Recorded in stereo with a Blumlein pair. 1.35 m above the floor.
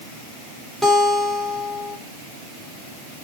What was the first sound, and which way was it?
A guitar, 5° left.